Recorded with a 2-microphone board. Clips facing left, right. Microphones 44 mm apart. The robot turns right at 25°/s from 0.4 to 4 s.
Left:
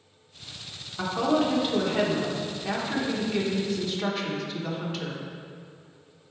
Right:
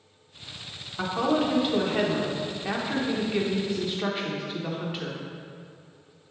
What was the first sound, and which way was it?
A woman speaking, 5° right (ahead or behind).